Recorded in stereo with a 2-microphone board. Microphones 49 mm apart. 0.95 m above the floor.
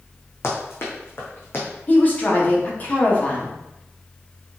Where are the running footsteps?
60° left (ahead or behind), 3 m; by 1.7 s 50° left (ahead or behind), 3 m.